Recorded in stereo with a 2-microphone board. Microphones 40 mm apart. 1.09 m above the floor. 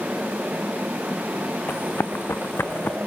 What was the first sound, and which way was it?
Running footsteps, 75° left (ahead or behind).